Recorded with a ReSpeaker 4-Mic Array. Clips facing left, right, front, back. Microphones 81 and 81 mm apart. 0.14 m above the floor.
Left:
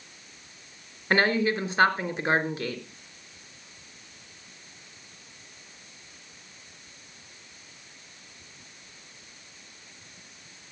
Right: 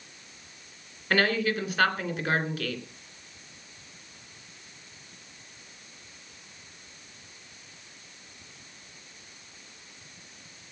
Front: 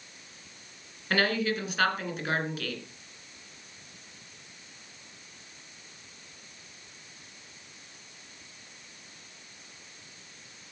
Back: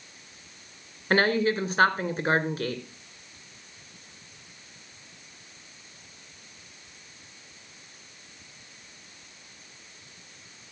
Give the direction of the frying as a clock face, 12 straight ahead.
I don't hear frying.